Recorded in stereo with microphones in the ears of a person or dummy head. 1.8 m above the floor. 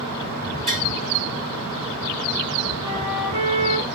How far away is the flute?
About 1.2 m.